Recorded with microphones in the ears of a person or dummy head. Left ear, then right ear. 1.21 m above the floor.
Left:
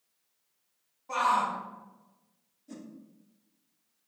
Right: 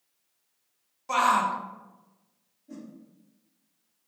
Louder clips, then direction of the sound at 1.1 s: Right 4 dB; 75° right (ahead or behind).